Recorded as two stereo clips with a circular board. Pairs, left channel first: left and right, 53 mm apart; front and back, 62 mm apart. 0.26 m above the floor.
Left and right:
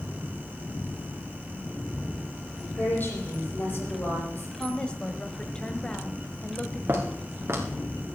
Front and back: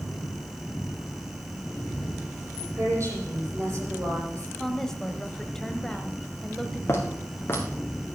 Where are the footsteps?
50° right, 3.5 m.